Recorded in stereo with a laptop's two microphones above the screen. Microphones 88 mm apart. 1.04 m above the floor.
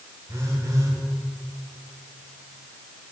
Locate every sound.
0.3 s a phone buzzing: 40° right (ahead or behind), 5 m